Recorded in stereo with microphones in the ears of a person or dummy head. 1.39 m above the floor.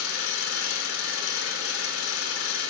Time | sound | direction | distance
0.0 | an engine running | 80° left | 5 m